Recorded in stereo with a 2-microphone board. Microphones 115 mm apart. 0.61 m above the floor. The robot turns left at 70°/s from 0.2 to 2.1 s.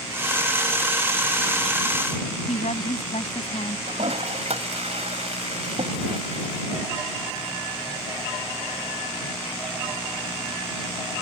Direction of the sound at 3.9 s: 65° right (ahead or behind).